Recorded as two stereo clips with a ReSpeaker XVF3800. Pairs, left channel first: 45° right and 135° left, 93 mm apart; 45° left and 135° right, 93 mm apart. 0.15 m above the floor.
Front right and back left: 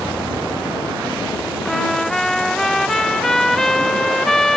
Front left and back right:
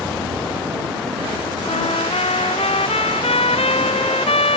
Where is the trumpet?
40° left.